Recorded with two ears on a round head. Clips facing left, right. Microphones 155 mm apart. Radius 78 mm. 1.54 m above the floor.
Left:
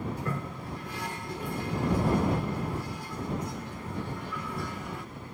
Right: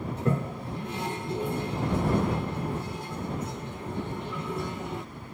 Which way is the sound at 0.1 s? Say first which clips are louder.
Right 6 dB; 20° right (ahead or behind).